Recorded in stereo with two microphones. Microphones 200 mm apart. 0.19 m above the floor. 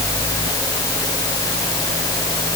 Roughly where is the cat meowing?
No cat meowing in this recording.